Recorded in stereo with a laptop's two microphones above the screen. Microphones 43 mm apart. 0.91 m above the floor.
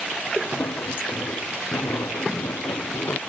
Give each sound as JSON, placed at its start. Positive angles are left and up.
{"t": 0.4, "sound": "footsteps", "side_deg": 65}